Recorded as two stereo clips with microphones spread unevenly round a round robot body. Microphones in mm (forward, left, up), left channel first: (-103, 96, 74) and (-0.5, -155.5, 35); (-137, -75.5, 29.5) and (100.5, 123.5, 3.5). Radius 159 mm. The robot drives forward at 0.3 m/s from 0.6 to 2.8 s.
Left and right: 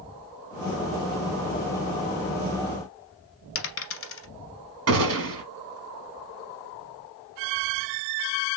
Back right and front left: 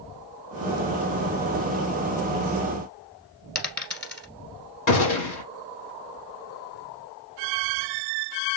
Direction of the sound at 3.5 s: 135° left.